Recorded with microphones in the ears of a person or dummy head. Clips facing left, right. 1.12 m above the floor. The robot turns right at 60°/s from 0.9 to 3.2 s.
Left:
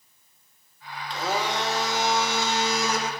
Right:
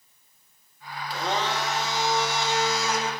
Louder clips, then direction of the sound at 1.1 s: Even; 10° right.